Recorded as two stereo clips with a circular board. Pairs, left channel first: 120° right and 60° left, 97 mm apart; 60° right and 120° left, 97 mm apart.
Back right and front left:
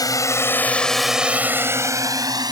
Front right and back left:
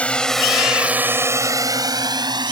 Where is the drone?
130° right; by 2.5 s 95° left.